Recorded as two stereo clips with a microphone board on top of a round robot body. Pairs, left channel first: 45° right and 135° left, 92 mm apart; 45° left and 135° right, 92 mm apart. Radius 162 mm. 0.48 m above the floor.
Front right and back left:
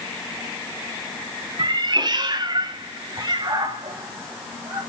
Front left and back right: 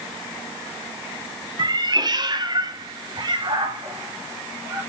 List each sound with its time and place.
1.6 s a cat meowing: straight behind, 1.0 m